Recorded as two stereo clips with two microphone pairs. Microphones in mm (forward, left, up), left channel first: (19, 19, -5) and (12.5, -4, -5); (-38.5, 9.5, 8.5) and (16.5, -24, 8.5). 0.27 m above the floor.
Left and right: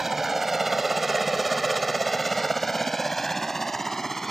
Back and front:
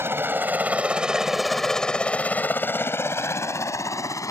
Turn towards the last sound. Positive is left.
turn(degrees=150)